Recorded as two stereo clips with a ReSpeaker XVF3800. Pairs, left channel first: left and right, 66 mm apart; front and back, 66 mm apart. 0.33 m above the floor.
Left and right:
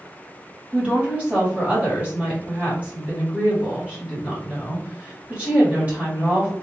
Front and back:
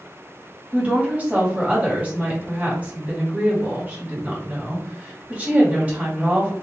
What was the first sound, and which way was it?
A woman speaking, 135° right.